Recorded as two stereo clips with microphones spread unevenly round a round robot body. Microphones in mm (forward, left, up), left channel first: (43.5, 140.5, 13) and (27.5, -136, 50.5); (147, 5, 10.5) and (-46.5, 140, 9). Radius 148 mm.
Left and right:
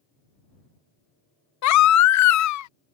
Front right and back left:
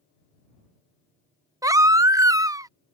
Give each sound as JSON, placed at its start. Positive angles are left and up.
{"t": 1.6, "sound": "a baby crying", "azimuth_deg": 70}